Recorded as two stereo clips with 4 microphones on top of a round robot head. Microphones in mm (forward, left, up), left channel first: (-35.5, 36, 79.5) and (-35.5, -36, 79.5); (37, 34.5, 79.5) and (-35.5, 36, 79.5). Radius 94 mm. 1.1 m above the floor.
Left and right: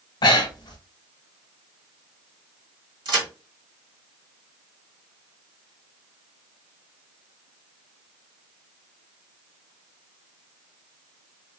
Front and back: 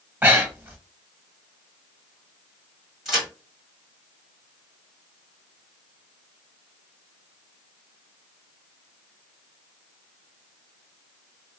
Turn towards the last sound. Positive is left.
turn(degrees=-95)